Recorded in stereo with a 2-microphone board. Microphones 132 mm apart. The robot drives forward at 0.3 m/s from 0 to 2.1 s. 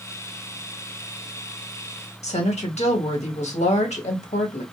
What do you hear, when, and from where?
2.2 s a woman speaking: 60° left (ahead or behind), 1.2 m